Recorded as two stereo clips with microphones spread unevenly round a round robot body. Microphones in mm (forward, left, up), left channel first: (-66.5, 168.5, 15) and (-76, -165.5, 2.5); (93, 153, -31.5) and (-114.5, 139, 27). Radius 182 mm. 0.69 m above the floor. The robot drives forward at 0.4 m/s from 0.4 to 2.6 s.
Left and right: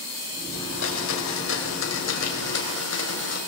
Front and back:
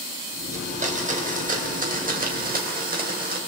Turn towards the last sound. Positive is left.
turn(degrees=135)